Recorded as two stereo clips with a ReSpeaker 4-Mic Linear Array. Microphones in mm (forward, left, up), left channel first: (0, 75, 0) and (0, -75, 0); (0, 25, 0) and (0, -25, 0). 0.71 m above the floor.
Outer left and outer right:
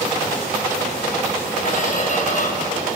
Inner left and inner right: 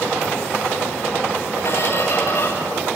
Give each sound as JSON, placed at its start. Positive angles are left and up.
{"t": 1.6, "sound": "a squeak", "side_deg": 60, "distance_m": 5.5}